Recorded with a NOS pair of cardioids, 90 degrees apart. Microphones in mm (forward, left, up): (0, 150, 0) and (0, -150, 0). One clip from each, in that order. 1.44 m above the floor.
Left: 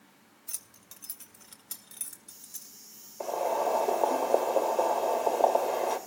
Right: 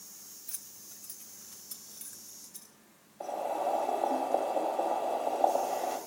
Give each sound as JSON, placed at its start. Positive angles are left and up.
{"t": 0.5, "sound": "keys jangling", "azimuth_deg": 20, "distance_m": 1.1}
{"t": 3.2, "sound": "boiling", "azimuth_deg": 55, "distance_m": 2.5}